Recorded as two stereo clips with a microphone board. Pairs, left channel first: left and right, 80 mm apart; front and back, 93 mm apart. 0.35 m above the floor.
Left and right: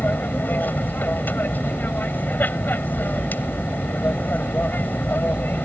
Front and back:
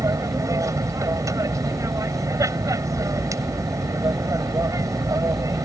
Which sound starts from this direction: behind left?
An aircraft, at 0.0 s.